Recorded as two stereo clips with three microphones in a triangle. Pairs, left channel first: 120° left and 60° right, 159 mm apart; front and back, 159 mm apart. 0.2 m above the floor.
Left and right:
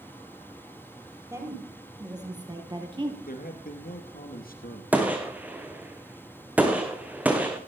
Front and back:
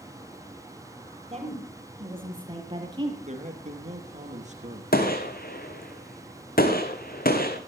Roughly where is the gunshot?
Ahead.